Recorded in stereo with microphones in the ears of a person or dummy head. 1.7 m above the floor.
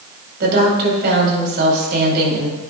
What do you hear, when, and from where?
0.4 s a woman speaking: 55° right (ahead or behind), 5 m